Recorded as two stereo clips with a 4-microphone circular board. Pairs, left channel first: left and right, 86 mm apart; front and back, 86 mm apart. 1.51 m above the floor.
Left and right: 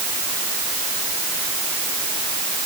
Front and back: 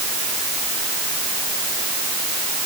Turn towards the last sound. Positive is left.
No sound to turn to.